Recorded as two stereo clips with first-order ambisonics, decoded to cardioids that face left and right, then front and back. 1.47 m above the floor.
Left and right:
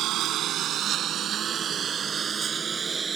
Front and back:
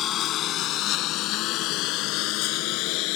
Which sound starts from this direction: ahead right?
A lawn mower, at 0.0 s.